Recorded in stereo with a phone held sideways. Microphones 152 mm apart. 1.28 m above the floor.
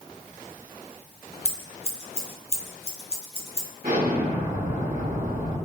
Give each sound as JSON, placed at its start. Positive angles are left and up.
{"t": 1.4, "sound": "scissors", "side_deg": 45, "distance_m": 0.6}
{"t": 3.8, "sound": "an explosion", "side_deg": -60, "distance_m": 1.3}